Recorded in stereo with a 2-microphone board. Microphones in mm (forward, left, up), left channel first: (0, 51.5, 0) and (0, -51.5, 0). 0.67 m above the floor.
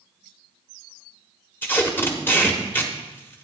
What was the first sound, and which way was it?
Tape being pulled, 20° left (ahead or behind).